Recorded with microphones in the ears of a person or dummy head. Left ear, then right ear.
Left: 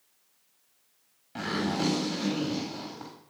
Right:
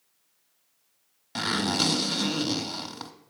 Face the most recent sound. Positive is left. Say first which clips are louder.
# right 5 dB
turn(degrees=-50)  # may be behind; listen again after turning